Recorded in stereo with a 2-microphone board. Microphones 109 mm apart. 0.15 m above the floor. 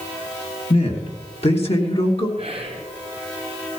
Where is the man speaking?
65° left (ahead or behind), 3.5 m; by 2.3 s 55° left (ahead or behind), 2.5 m.